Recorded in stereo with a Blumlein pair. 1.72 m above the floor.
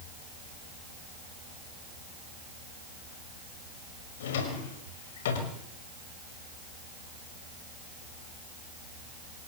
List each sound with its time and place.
4.2 s a drawer: 55° left, 5.5 m